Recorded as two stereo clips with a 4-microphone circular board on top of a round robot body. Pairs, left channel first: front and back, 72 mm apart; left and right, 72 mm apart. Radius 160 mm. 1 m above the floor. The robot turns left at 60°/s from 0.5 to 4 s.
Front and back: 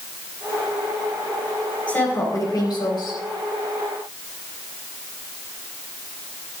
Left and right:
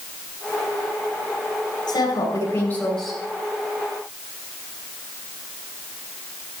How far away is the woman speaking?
About 5.5 m.